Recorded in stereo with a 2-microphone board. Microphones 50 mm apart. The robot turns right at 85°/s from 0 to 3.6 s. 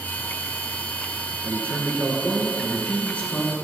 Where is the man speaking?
105° right, 1.6 m; by 3.5 s 75° left, 1.6 m.